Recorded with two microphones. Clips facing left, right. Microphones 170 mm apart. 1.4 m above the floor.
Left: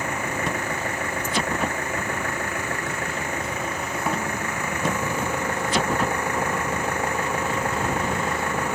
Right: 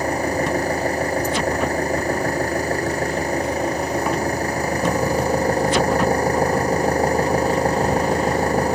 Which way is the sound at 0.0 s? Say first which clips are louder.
Right 7 dB; 35° right (ahead or behind).